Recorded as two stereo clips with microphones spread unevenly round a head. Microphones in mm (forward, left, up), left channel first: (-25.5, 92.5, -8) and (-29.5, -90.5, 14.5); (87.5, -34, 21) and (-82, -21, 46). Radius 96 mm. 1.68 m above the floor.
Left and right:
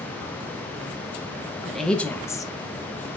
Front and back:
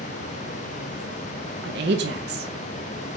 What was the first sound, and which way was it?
A woman speaking, straight behind.